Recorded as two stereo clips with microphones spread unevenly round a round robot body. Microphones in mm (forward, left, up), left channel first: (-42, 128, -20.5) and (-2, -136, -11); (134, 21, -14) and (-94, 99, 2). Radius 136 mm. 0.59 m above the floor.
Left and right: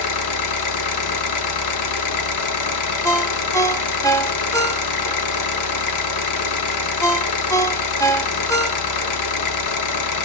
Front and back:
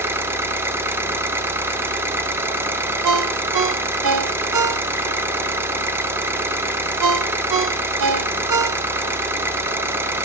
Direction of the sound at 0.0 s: 80° left.